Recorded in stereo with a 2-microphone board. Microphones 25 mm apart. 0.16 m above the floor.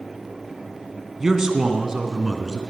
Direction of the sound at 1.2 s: 25° right (ahead or behind).